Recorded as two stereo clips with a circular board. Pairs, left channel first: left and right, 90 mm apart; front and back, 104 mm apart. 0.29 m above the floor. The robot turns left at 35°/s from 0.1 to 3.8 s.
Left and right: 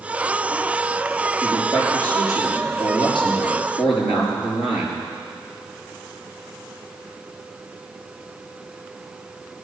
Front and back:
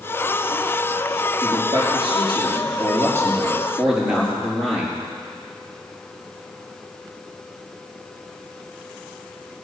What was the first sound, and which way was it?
A man speaking, straight behind.